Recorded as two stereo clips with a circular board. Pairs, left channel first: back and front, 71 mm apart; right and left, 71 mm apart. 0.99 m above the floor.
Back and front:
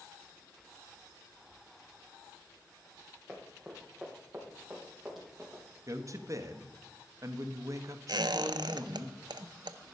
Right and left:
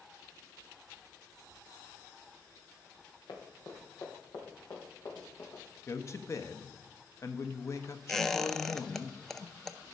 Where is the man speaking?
45° right, 1.0 m.